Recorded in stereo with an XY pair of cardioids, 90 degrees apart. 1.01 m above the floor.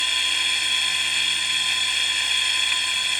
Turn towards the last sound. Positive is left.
turn(degrees=-5)